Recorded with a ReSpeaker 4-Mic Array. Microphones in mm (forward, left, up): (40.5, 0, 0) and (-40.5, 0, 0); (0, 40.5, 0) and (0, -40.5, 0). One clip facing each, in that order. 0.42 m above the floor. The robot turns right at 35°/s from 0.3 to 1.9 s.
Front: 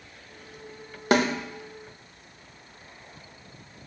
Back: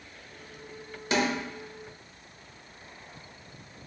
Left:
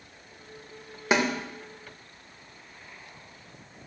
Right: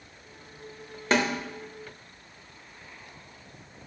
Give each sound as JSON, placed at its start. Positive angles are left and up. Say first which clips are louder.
{"t": 1.1, "sound": "a snare drum", "louder": "front 5 dB, even", "azimuth_deg": 10, "distance_m": 0.6}